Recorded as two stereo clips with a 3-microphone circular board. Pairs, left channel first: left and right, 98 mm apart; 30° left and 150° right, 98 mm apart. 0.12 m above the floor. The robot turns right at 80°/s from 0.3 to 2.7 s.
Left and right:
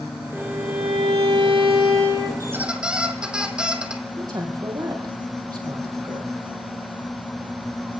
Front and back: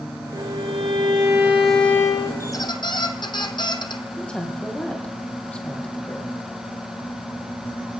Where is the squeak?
35° right, 1.4 m; by 4.0 s 10° right, 1.4 m.